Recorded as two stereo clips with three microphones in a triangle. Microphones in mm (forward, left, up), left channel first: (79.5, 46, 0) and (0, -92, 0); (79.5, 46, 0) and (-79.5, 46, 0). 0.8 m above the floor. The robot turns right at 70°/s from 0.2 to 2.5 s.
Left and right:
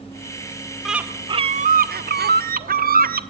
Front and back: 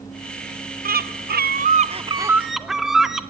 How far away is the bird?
About 0.6 m.